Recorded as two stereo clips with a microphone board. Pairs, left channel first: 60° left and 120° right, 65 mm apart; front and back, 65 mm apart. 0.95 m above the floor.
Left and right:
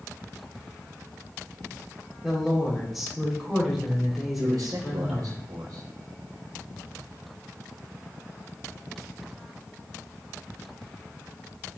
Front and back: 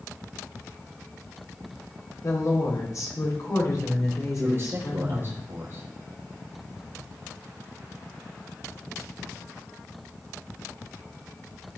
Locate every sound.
2.2 s a woman speaking: 30° right, 4.5 m
4.4 s a man speaking: 135° right, 4 m